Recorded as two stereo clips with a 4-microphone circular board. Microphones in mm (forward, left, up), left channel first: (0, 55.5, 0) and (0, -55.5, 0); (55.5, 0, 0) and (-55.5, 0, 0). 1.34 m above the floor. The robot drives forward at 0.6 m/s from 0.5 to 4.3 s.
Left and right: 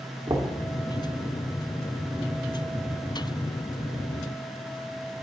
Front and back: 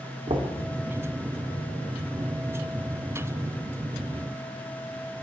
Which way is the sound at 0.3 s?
150° right.